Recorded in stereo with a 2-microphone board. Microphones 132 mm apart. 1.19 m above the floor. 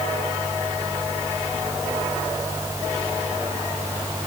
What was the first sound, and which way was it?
Only background noise.